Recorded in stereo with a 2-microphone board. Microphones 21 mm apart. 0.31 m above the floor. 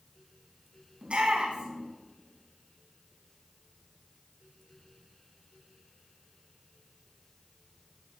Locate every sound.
1.0 s a shout: 60° right (ahead or behind), 2.5 m